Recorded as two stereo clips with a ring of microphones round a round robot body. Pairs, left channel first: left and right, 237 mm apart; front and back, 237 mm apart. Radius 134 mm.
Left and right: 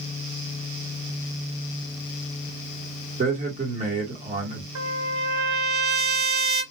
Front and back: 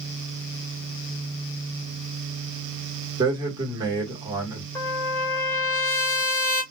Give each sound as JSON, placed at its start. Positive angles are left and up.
{"t": 3.2, "sound": "a man speaking", "azimuth_deg": -120, "distance_m": 1.2}
{"t": 4.8, "sound": "a trumpet", "azimuth_deg": -80, "distance_m": 1.9}